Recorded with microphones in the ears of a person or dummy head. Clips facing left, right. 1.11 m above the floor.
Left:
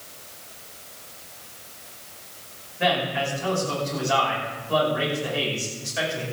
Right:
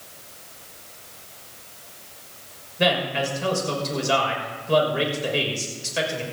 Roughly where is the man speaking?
Right.